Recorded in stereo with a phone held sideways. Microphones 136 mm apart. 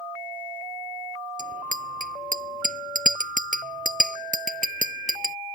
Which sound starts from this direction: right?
A bicycle bell, at 1.4 s.